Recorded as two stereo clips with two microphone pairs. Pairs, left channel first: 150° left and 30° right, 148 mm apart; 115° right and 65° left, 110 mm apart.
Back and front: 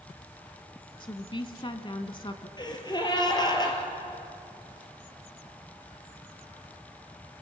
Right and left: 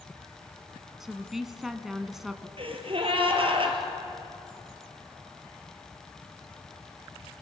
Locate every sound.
1.0 s a woman speaking: 145° left, 1.2 m
2.6 s a gasp: 90° left, 3 m